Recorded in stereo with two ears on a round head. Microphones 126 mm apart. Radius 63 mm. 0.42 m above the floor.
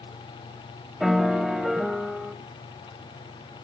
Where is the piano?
Centre (ahead or behind), 0.9 m.